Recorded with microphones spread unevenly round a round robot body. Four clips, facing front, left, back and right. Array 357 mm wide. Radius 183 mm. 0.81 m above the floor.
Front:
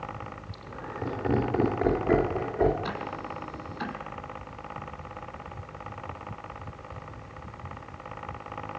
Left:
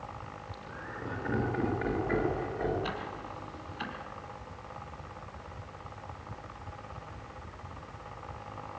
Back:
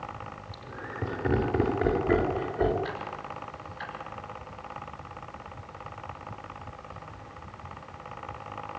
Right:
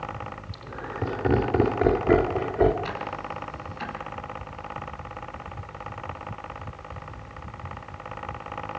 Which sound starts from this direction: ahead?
Ticking, at 2.8 s.